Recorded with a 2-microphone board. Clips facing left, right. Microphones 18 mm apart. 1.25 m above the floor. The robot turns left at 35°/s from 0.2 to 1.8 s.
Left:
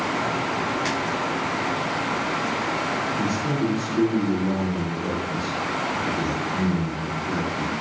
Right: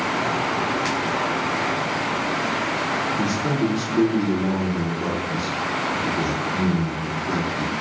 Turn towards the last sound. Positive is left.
turn(degrees=-55)  # may be behind; listen again after turning